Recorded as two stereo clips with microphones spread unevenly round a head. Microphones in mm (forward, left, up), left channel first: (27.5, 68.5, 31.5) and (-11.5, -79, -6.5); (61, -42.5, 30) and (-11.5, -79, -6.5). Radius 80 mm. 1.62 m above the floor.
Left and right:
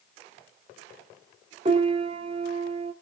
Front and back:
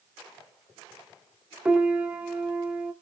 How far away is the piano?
About 1.4 m.